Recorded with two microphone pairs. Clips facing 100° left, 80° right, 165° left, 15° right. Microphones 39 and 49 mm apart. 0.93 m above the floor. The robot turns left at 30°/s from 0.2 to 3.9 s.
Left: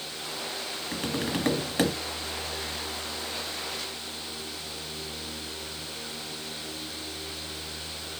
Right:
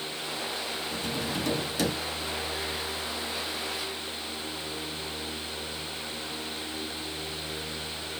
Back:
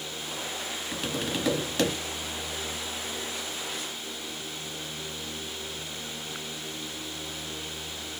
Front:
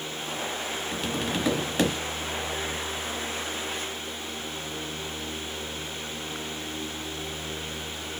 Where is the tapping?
80° left, 0.8 m; by 1.9 s 50° left, 0.8 m.